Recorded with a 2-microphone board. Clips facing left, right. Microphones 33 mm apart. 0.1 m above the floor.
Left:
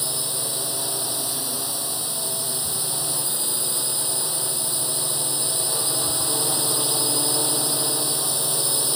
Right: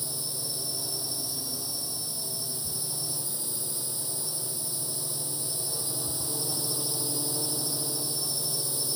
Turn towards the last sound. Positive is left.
turn(degrees=65)  # may be behind; listen again after turning